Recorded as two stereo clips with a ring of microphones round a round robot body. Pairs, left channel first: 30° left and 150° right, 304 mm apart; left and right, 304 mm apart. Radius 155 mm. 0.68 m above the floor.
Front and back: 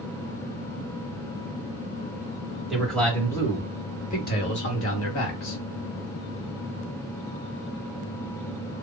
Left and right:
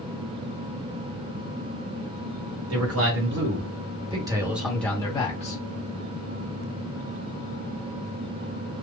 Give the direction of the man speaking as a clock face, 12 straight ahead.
2 o'clock.